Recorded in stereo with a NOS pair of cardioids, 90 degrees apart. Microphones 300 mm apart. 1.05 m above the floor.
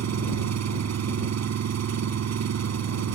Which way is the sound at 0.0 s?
60° right.